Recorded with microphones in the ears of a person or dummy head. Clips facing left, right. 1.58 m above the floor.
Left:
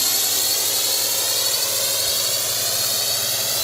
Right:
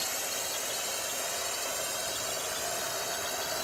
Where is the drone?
75° left (ahead or behind); by 3.6 s 80° left.